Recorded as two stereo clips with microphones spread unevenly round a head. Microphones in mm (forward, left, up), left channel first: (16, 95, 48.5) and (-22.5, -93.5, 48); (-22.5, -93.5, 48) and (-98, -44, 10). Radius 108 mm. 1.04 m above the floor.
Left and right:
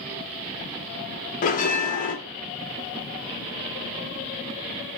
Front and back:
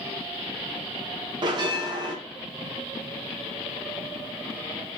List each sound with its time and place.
1.4 s a bell: 125° left, 0.8 m